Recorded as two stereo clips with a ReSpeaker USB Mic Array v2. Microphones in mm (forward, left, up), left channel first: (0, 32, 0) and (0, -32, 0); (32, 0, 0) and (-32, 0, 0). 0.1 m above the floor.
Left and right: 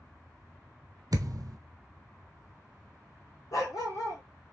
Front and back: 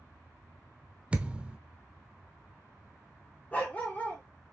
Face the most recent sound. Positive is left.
turn(degrees=65)